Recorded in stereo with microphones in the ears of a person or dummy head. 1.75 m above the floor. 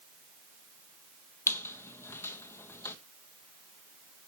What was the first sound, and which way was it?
A squeak, 10° left (ahead or behind).